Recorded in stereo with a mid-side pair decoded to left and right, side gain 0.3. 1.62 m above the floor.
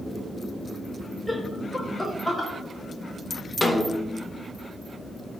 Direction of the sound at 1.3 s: 20° left.